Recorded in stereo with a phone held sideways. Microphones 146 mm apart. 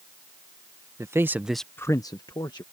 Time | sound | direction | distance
1.0 | a man speaking | 20° right (ahead or behind) | ?